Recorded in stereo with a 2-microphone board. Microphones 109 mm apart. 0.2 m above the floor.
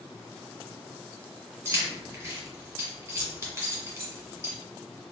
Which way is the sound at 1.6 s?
25° right (ahead or behind).